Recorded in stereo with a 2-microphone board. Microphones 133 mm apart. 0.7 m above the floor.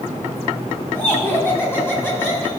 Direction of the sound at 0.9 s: 15° left (ahead or behind).